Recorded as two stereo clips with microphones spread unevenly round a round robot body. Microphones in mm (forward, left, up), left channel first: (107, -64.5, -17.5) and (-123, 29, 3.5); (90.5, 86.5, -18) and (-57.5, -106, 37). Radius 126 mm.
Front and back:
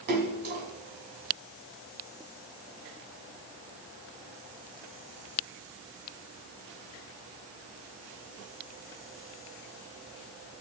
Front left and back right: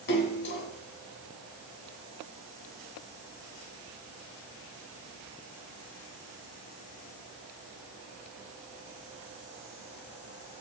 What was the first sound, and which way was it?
A splash, 105° left.